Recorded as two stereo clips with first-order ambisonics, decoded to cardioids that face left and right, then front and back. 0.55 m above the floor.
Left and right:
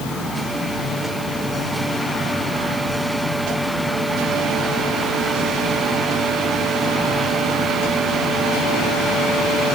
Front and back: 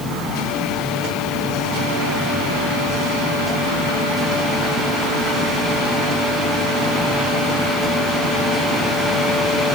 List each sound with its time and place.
Only background noise.